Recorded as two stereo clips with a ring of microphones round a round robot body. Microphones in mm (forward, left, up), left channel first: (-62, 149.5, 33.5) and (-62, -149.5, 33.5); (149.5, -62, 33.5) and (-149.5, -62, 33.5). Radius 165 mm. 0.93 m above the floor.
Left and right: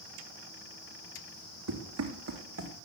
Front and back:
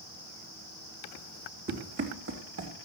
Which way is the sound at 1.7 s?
125° right.